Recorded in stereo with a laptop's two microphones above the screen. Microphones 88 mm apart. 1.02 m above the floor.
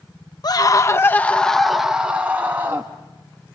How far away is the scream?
About 1.0 m.